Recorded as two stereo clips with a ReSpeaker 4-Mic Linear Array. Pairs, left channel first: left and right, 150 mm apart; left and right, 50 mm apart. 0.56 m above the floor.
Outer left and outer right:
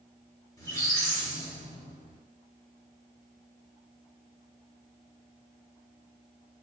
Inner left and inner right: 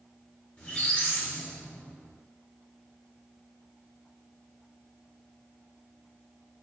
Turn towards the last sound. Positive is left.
turn(degrees=25)  # may be behind; listen again after turning